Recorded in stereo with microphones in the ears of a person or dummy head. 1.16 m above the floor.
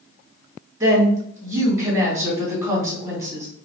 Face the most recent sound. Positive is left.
turn(degrees=-20)  # may be behind; listen again after turning